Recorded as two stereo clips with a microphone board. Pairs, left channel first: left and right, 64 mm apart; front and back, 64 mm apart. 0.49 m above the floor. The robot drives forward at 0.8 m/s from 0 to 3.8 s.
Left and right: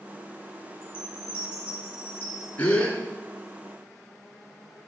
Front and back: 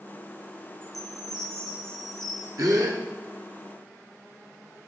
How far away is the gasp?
About 1.8 m.